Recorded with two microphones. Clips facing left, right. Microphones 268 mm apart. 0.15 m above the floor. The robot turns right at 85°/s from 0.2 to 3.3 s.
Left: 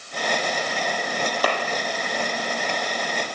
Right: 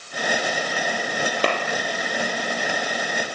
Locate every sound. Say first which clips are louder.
1.4 s a clap: right 2 dB; 30° right (ahead or behind), 3 m; by 1.5 s 35° right (ahead or behind), 3 m